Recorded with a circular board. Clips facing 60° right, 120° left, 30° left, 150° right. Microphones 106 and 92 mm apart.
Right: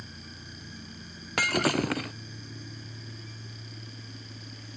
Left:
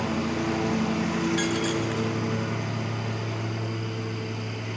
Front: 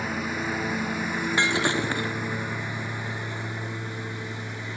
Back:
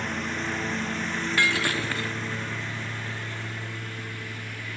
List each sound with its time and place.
0.0 s a lawn mower: 115° left; by 4.8 s 100° left
1.4 s breaking glass: 35° right